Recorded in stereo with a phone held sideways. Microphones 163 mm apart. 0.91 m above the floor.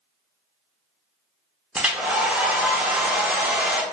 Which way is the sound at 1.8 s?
5° right (ahead or behind).